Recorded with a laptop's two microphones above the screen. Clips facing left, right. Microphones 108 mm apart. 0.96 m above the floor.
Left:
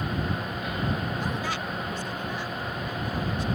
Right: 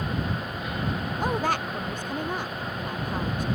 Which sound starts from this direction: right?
A woman speaking, at 1.2 s.